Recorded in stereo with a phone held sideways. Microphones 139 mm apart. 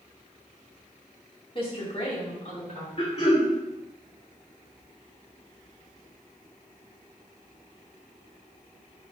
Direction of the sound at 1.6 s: 40° left (ahead or behind).